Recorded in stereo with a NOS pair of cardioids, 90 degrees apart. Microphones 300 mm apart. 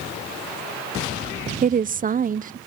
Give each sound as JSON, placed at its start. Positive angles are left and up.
{"t": 1.6, "sound": "a woman speaking", "azimuth_deg": -30, "distance_m": 0.5}